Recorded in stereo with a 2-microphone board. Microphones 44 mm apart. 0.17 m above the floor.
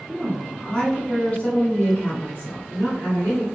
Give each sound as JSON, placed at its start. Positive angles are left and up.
{"t": 0.1, "sound": "a woman speaking", "side_deg": 5, "distance_m": 1.6}